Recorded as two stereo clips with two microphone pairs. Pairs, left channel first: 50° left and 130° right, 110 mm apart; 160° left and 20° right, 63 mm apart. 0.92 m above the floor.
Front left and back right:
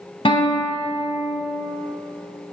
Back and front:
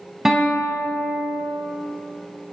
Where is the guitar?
60° left, 1.2 m.